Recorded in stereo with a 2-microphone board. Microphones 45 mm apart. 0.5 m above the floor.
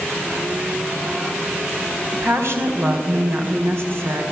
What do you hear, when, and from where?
2.1 s a woman speaking: 65° right (ahead or behind), 4 m